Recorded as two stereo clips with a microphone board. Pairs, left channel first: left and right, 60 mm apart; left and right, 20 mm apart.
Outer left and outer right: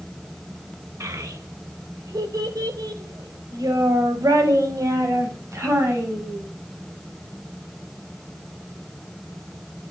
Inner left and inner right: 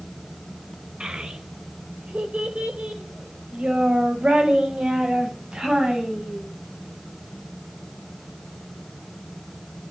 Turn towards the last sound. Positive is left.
turn(degrees=-45)  # may be behind; listen again after turning